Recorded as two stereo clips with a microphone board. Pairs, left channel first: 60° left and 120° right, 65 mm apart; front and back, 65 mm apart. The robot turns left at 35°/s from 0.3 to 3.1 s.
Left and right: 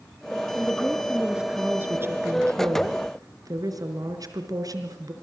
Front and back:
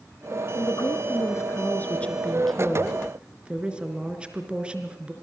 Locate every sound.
0.6 s a woman speaking: 15° right, 4 m; by 5.1 s 105° right, 4 m